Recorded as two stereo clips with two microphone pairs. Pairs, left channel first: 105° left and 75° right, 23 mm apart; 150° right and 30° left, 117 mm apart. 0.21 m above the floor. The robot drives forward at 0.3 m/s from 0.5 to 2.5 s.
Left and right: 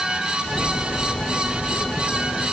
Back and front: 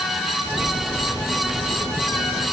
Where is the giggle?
I don't hear a giggle.